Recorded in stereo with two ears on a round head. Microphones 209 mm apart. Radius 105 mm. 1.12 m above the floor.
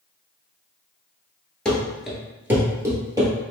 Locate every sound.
1.6 s running footsteps: 5° left (ahead or behind), 1.1 m; by 3.3 s 15° right (ahead or behind), 1.5 m